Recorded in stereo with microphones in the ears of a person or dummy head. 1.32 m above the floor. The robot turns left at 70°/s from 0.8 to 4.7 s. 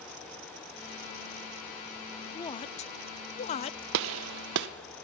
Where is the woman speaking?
20° left (ahead or behind), 0.5 m; by 3.8 s 25° left (ahead or behind), 0.5 m.